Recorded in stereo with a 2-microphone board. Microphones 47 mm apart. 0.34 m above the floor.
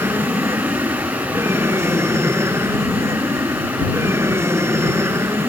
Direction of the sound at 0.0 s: 70° right (ahead or behind).